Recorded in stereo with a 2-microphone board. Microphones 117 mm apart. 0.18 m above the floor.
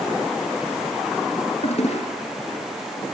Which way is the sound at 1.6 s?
65° left (ahead or behind).